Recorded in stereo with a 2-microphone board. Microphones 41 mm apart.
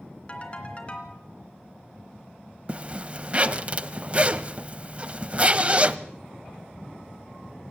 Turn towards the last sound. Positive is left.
turn(degrees=-30)  # may be behind; listen again after turning